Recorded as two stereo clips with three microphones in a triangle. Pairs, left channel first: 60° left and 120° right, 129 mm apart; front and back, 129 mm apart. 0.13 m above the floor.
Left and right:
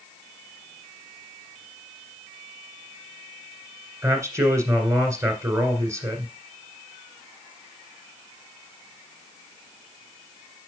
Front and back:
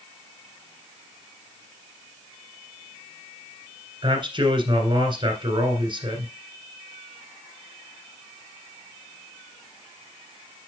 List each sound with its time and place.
4.0 s a man speaking: 175° right, 1.7 m